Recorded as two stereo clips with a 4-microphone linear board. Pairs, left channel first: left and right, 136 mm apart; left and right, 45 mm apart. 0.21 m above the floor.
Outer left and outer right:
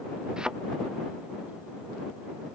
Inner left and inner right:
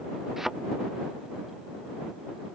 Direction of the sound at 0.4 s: 5° right (ahead or behind).